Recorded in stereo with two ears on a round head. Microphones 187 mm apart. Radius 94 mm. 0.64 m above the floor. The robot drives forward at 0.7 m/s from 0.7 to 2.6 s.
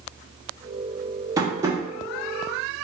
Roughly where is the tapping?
Centre.